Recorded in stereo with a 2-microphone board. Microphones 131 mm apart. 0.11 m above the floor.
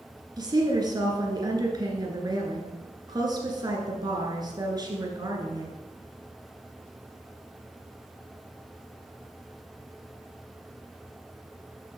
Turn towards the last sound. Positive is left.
turn(degrees=-30)  # may be behind; listen again after turning